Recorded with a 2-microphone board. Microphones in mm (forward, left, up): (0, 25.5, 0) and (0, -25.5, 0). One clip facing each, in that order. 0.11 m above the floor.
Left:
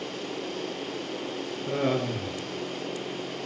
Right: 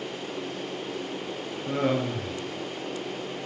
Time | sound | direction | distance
1.7 | laughter | 5° right (ahead or behind) | 1.4 m